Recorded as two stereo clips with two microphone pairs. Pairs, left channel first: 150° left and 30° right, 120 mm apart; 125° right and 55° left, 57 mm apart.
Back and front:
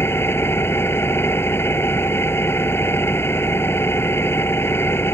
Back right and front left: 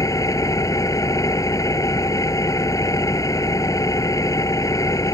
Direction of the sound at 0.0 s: 140° right.